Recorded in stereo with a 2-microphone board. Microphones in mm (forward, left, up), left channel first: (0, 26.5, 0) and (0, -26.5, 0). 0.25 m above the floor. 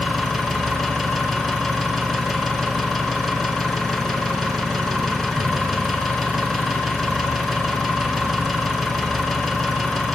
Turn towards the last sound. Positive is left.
turn(degrees=0)  # may be behind; listen again after turning